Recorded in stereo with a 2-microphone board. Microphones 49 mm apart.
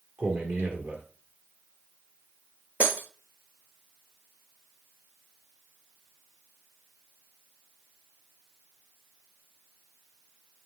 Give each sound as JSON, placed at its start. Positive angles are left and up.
{"t": 0.2, "sound": "a man speaking", "side_deg": -50, "distance_m": 2.0}
{"t": 2.8, "sound": "breaking glass", "side_deg": -30, "distance_m": 1.7}